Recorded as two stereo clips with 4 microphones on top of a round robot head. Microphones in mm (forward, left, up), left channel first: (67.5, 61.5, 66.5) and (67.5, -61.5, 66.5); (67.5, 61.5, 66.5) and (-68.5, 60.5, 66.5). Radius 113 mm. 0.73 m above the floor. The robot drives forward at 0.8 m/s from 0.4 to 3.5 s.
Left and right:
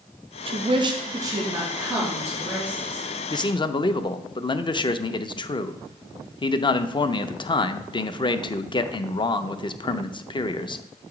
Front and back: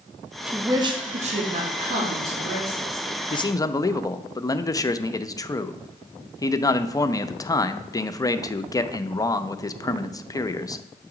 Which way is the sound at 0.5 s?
95° right.